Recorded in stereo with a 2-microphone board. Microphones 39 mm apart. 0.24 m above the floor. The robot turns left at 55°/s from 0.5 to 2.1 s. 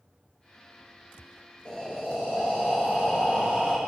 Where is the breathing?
20° left (ahead or behind), 6 m; by 3.8 s 45° left (ahead or behind), 6 m.